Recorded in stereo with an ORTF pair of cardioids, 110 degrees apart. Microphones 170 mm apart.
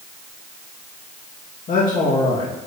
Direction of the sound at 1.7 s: 55° left.